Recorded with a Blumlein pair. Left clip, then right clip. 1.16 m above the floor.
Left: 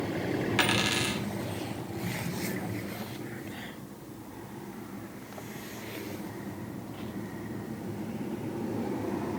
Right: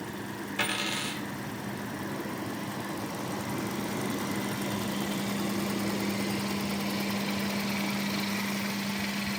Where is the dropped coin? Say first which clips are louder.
Left 3 dB; 55° left, 1.6 m.